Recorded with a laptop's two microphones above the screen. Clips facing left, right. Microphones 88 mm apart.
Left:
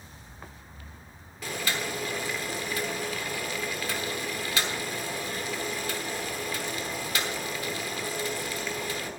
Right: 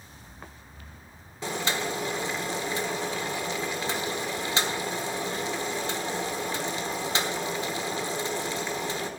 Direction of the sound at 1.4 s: 25° right (ahead or behind).